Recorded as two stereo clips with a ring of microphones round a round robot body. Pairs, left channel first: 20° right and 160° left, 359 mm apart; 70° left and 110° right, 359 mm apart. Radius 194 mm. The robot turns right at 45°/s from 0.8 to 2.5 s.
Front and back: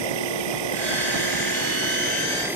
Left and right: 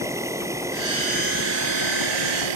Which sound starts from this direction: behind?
An insect, at 0.0 s.